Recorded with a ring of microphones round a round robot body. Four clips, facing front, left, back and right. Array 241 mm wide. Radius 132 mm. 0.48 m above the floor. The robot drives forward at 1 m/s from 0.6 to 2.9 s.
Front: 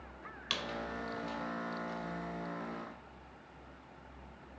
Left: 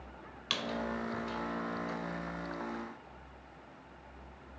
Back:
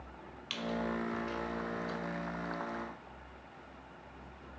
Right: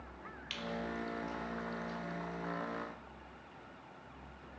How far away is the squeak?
About 0.9 m.